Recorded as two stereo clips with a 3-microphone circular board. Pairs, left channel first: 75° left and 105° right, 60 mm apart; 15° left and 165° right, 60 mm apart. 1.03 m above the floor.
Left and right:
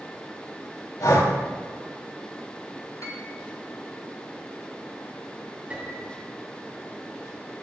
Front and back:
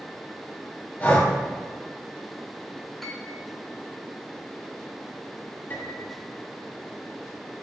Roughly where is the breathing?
Left.